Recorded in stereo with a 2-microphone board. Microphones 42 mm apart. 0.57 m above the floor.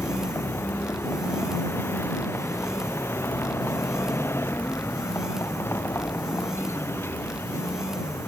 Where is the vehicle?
85° left; by 8.3 s 90° left.